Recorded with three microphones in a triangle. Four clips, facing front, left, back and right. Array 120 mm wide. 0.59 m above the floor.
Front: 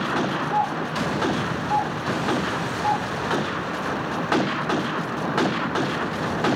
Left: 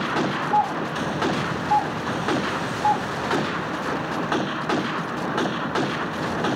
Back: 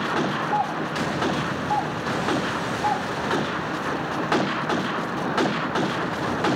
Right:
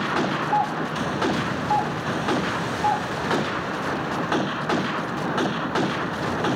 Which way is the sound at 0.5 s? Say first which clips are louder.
Left 3 dB, front 1 dB; 115° right.